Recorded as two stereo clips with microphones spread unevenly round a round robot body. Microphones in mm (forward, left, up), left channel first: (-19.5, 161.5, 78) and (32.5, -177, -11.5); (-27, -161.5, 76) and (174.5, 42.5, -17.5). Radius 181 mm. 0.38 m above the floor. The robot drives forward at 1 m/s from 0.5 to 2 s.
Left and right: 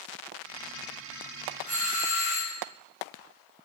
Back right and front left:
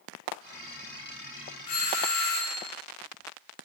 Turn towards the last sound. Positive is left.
turn(degrees=-160)